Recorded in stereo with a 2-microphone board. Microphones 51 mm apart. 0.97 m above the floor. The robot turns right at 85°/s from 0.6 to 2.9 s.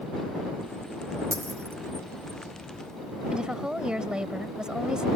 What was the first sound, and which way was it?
A dropped coin, 85° right.